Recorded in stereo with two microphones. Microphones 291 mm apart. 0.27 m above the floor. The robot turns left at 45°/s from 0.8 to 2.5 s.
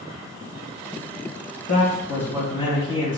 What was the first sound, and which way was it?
A man speaking, 70° left.